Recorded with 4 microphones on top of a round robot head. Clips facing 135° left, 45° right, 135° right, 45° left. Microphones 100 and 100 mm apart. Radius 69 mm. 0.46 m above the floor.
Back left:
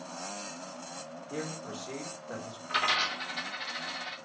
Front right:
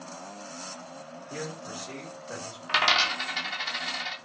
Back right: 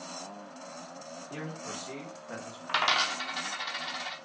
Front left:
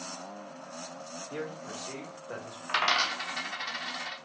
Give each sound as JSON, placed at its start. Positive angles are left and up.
{"t": 1.3, "sound": "a man speaking", "azimuth_deg": -160, "distance_m": 1.2}
{"t": 2.7, "sound": "a dropped coin", "azimuth_deg": -60, "distance_m": 0.6}